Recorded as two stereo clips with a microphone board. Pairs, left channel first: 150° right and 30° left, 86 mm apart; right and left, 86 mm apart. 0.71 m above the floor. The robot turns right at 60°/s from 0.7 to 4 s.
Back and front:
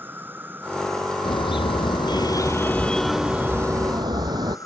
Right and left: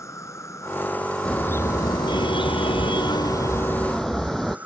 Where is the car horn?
170° right; by 4.6 s 5° right.